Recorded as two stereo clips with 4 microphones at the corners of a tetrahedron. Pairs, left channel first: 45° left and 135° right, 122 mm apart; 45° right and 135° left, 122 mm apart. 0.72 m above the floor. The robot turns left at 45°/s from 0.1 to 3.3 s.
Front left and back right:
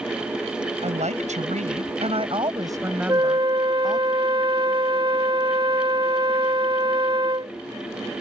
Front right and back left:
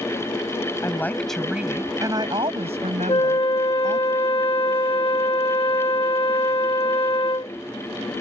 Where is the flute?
80° right; by 7.5 s 90° right.